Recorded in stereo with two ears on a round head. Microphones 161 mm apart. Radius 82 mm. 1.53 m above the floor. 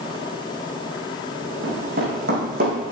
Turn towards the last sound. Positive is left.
turn(degrees=-50)  # may be behind; listen again after turning